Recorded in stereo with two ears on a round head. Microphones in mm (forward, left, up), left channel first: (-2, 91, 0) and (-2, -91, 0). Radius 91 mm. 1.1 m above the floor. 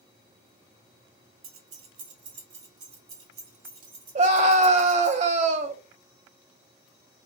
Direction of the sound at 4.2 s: 35° right (ahead or behind).